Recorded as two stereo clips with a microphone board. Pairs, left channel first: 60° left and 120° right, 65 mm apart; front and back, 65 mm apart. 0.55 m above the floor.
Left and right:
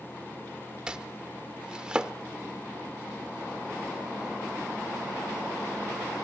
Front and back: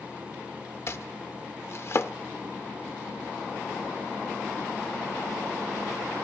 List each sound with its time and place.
0.9 s chopping: 45° right, 0.7 m